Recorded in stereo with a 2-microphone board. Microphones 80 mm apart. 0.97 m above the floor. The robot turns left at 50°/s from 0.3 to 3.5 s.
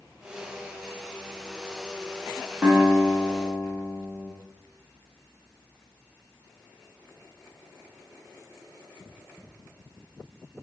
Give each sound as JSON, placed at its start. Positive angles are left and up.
{"t": 2.6, "sound": "a guitar", "azimuth_deg": -175, "distance_m": 0.9}